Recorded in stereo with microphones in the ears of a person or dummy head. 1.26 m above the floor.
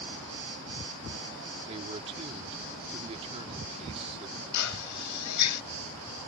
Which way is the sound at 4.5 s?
85° left.